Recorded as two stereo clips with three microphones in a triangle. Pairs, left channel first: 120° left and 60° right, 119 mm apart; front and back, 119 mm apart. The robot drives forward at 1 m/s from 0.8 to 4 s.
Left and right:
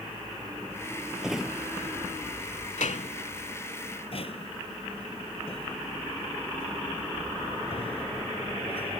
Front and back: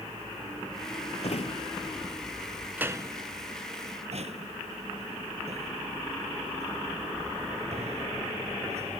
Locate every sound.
1.2 s a drawer: 25° left; by 9.0 s 155° left